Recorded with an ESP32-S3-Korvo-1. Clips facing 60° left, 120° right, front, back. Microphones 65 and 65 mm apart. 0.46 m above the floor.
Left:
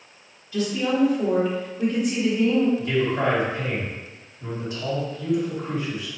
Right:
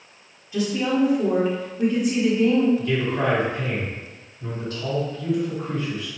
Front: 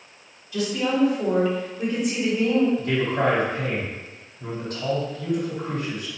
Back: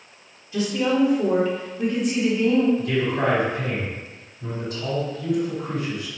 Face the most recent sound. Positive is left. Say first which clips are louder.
# left 1 dB, even
turn(degrees=-5)